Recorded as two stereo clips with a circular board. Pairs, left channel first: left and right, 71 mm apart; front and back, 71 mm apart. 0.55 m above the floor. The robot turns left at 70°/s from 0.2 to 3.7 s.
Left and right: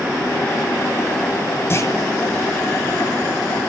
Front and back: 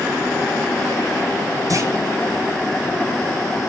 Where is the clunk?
145° left, 1.1 m; by 1.9 s 130° left, 1.1 m.